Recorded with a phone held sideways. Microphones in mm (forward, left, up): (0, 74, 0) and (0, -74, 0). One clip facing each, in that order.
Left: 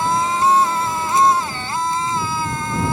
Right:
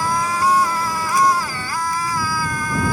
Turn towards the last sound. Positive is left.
turn(degrees=25)  # may be behind; listen again after turning